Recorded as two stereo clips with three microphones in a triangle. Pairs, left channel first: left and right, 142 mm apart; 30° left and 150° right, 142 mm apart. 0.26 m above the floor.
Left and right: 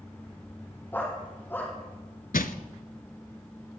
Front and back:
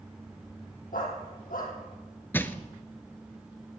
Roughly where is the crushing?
Left.